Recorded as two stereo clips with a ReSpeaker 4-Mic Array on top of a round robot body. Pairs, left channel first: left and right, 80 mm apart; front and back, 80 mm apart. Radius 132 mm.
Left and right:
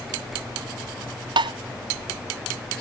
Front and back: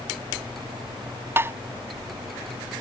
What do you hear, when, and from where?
1.4 s tapping: 115° right